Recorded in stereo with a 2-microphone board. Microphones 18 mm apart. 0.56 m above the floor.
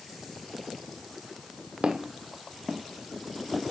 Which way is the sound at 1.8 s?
70° right (ahead or behind).